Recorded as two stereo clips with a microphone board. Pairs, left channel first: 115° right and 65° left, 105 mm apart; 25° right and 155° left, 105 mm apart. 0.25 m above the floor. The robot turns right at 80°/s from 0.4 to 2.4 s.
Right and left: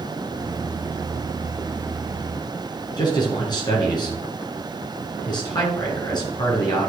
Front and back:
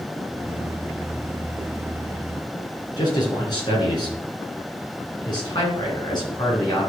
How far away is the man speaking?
About 4 m.